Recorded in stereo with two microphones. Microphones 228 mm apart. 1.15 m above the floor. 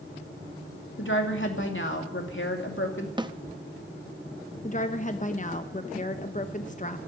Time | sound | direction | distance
1.0 | a woman speaking | 55° left (ahead or behind) | 2.5 m
3.2 | a snare drum | 20° right (ahead or behind) | 0.7 m
4.6 | a woman speaking | 35° left (ahead or behind) | 0.9 m